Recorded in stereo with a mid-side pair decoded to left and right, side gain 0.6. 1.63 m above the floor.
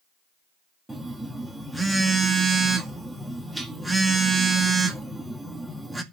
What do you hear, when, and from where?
0.9 s a phone buzzing: 10° right, 2 m